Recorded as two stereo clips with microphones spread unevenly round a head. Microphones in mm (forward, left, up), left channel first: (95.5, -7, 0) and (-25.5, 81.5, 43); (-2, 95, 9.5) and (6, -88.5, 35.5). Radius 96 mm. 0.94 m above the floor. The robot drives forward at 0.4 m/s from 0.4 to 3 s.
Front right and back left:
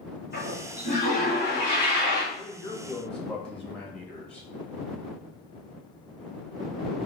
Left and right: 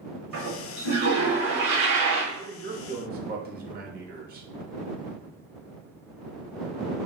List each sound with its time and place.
0.3 s a toilet flushing: 85° right, 1.7 m; by 2.2 s 110° right, 1.7 m
2.3 s a man speaking: 65° right, 0.8 m; by 4.5 s 95° right, 0.8 m